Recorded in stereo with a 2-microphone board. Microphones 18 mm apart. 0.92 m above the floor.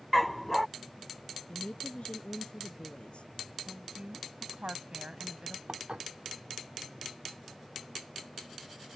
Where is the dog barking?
5° left (ahead or behind).